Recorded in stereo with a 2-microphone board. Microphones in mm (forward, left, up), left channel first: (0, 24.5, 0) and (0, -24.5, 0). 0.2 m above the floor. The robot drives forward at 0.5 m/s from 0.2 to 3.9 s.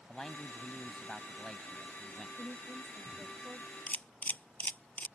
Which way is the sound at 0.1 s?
5° left (ahead or behind).